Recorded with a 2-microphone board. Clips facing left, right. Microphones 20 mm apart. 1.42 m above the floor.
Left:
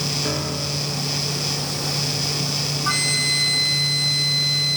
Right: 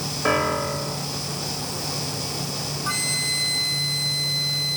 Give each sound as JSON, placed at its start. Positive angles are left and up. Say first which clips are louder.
{"t": 0.2, "sound": "a piano", "louder": "right 3 dB", "side_deg": -45}
{"t": 2.9, "sound": "a flute", "louder": "left 4 dB", "side_deg": 15}